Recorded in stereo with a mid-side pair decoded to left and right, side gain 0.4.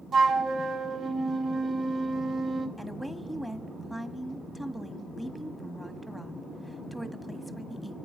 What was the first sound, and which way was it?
A flute, 55° right.